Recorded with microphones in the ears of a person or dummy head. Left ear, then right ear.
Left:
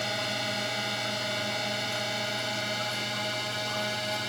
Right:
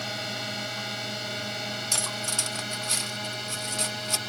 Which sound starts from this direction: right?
Cutlery clinking, at 1.9 s.